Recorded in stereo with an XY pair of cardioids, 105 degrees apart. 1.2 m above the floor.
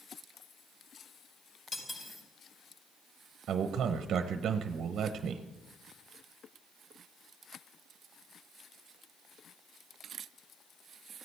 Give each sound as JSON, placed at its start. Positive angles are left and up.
{"t": 1.7, "sound": "cutlery clinking", "azimuth_deg": 40, "distance_m": 4.5}
{"t": 3.5, "sound": "a man speaking", "azimuth_deg": -65, "distance_m": 0.8}